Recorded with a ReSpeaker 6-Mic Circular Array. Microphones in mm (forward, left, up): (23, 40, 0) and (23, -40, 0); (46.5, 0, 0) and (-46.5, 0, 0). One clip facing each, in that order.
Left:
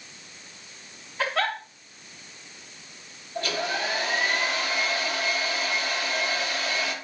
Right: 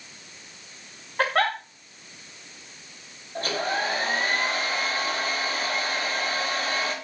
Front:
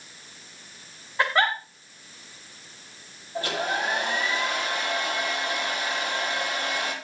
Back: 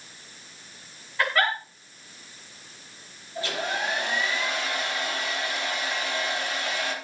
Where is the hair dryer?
40° right, 7.5 m.